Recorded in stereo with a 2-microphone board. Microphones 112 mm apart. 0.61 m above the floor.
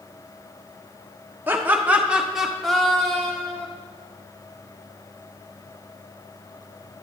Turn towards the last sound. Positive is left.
turn(degrees=15)  # may be behind; listen again after turning